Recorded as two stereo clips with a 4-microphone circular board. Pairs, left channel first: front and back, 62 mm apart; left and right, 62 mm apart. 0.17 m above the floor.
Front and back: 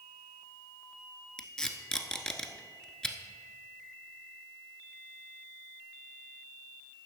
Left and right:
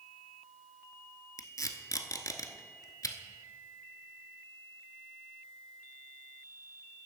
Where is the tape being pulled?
75° left, 0.8 m.